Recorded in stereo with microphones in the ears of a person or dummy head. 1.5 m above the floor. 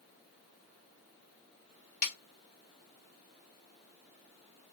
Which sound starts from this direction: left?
A snare drum, at 2.0 s.